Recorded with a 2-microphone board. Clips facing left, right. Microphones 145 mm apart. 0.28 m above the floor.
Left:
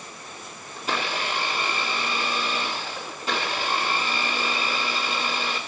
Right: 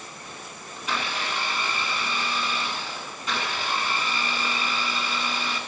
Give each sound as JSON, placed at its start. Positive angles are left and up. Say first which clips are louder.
{"t": 0.8, "sound": "a blender", "louder": "left 2 dB", "side_deg": 35, "distance_m": 2.5}